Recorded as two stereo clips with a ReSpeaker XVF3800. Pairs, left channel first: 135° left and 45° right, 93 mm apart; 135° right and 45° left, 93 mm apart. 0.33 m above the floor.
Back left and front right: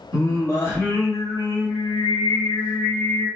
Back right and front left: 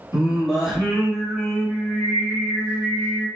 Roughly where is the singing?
Behind left.